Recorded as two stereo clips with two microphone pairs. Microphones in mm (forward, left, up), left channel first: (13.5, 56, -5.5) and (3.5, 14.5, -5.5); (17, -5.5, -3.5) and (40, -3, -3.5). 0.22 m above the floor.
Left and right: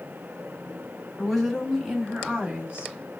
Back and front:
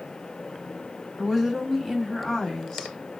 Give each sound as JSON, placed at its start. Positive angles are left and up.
{"t": 1.2, "sound": "a woman speaking", "azimuth_deg": 20, "distance_m": 1.2}